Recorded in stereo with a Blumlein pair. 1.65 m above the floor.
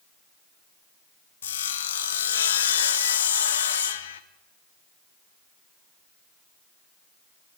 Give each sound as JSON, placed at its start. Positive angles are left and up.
{"t": 1.4, "sound": "sawing", "azimuth_deg": 65, "distance_m": 0.8}